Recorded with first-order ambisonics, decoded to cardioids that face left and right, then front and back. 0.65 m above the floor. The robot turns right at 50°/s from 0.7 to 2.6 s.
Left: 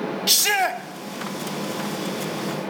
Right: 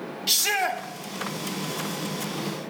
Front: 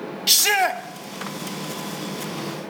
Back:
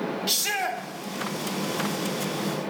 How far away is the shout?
About 0.7 m.